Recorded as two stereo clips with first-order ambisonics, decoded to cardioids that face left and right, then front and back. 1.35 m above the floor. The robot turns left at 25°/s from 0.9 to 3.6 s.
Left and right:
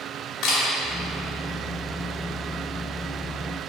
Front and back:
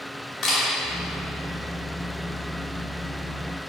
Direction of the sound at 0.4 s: 55° left.